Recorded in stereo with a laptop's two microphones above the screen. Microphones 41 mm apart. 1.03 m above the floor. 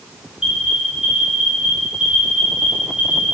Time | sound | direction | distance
0.4 | an alarm | 15° right (ahead or behind) | 5 m